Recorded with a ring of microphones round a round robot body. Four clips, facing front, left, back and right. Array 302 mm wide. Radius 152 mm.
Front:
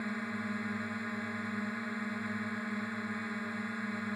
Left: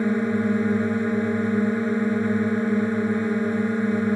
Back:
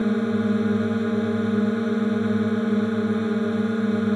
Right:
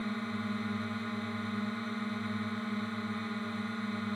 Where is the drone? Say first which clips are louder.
Left 14 dB, back 16 dB; 135° left.